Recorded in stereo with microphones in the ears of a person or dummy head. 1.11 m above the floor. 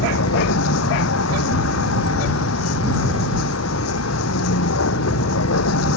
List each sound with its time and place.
0.0 s a vehicle: 90° left